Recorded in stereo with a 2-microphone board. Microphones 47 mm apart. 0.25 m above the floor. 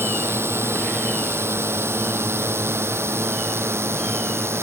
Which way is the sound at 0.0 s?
70° right (ahead or behind).